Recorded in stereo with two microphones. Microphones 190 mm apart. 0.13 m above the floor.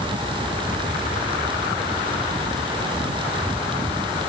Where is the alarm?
I don't hear an alarm.